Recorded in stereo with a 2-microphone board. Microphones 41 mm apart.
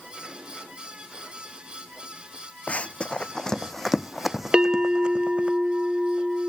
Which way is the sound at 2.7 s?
35° left (ahead or behind).